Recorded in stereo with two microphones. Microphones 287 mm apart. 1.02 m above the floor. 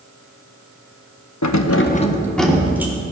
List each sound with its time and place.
1.4 s keys jangling: 75° left (ahead or behind), 0.7 m; by 2.9 s 10° right (ahead or behind), 2 m